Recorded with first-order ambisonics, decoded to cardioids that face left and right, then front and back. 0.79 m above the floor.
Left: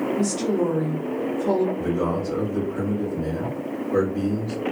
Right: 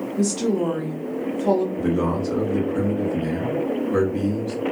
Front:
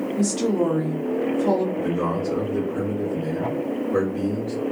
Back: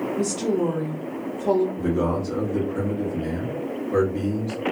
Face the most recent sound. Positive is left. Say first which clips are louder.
# right 1 dB, even
turn(degrees=-110)